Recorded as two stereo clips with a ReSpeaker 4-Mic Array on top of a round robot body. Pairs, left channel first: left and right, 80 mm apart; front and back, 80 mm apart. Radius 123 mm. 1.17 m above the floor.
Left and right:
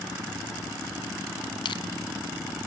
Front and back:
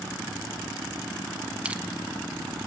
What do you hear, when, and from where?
1.6 s crushing: 105° left, 1.1 m